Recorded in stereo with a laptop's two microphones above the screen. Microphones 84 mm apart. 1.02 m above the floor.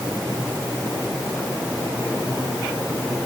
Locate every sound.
Only background noise.